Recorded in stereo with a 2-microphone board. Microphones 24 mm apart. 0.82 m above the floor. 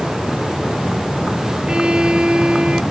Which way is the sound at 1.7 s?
40° right (ahead or behind).